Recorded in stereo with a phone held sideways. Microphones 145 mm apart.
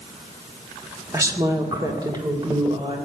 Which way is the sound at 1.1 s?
20° right (ahead or behind).